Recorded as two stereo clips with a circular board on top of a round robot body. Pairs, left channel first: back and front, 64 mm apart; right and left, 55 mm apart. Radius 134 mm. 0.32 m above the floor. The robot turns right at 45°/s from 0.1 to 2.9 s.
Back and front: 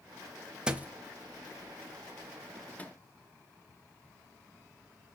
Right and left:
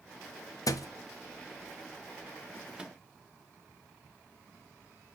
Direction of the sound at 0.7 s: 75° right.